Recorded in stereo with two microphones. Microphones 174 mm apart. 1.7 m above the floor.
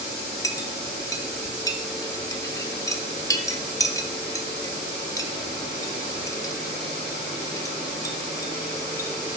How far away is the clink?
About 1.0 m.